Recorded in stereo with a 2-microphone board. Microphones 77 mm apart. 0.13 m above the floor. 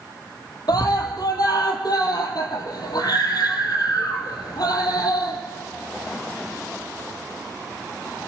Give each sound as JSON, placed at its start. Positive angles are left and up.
{"t": 0.7, "sound": "a scream", "side_deg": 65, "distance_m": 3.5}